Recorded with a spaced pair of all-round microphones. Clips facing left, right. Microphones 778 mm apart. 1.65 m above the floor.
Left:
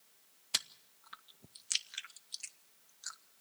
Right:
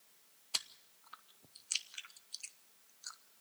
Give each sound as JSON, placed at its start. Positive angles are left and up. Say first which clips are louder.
{"t": 0.5, "sound": "chewing", "louder": "left 4 dB", "side_deg": 55, "distance_m": 0.6}